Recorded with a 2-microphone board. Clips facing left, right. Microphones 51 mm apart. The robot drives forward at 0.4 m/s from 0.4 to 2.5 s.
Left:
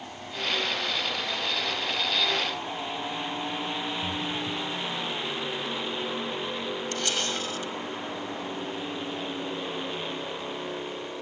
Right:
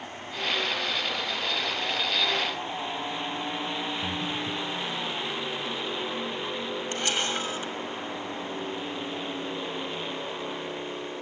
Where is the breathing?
50° right (ahead or behind), 0.9 m.